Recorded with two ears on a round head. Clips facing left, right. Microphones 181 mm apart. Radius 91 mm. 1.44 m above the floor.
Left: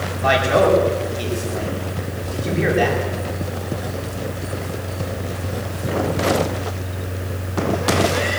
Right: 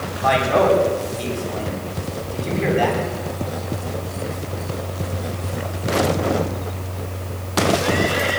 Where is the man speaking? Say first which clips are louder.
Left 1 dB; 25° left (ahead or behind), 9 m.